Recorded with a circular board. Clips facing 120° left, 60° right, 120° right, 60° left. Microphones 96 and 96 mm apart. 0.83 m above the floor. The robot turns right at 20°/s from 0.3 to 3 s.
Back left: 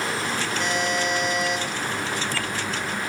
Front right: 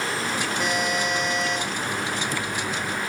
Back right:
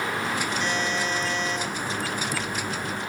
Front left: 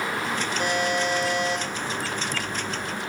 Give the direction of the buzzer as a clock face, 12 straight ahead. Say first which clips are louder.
Back left 1 dB, front left 2 dB; 11 o'clock.